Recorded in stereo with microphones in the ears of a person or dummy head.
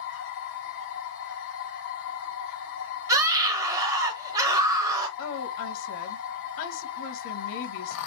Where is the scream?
20° right (ahead or behind), 0.6 m.